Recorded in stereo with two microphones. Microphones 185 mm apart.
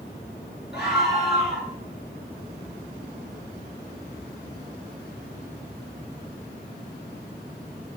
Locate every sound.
0.7 s a scream: 65° left (ahead or behind), 3.5 m